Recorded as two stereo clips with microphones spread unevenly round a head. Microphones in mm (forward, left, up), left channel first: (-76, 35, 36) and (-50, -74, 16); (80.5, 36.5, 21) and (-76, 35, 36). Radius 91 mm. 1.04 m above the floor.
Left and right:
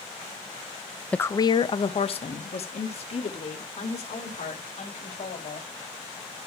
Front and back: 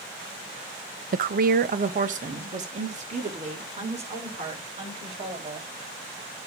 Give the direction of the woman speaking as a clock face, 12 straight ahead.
6 o'clock.